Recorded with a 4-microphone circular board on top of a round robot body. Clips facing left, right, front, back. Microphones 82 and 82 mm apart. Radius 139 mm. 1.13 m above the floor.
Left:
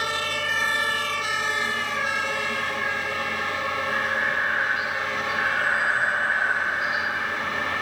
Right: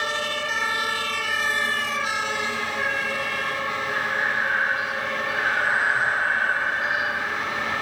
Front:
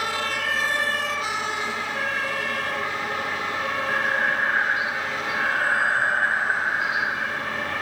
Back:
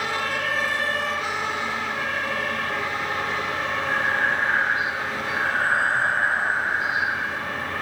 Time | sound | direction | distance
3.9 | breathing | 130° right | 6 m